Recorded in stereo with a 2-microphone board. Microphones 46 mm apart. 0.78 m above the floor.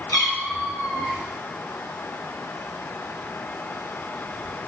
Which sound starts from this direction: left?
A cat meowing, at 0.1 s.